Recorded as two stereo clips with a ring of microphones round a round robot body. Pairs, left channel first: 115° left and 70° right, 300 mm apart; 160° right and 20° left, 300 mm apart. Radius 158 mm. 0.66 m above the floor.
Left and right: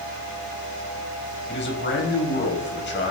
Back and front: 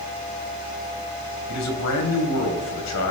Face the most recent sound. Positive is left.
turn(degrees=165)